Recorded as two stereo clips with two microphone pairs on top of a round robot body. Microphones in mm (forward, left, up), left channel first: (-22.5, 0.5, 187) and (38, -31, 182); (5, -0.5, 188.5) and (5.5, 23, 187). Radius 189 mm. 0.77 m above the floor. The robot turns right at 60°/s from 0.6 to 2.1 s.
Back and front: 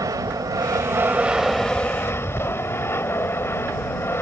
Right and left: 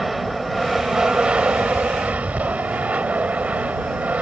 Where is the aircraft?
5° left; by 4.2 s 95° left.